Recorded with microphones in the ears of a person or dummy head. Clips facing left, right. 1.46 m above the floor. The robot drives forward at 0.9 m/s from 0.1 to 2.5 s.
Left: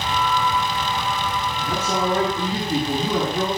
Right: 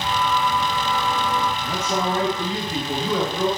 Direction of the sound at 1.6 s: 35° left (ahead or behind).